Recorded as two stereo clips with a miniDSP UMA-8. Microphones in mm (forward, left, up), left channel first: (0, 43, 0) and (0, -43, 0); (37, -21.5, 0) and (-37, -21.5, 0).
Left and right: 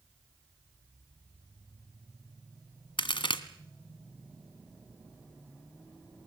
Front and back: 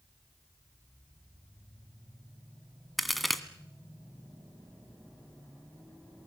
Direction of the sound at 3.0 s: 90° left.